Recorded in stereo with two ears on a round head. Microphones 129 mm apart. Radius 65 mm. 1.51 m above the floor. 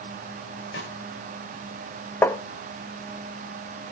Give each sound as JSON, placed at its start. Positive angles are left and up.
{"t": 0.7, "sound": "a snare drum", "side_deg": 85, "distance_m": 8.0}
{"t": 2.2, "sound": "tapping", "side_deg": 15, "distance_m": 1.0}